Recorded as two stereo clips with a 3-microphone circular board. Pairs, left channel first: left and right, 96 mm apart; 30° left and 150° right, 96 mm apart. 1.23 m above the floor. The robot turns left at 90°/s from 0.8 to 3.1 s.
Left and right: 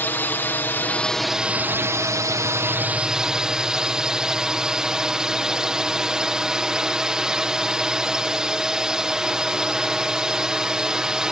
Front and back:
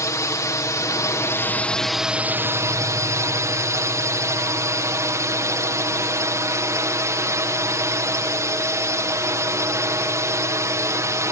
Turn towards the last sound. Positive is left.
turn(degrees=-170)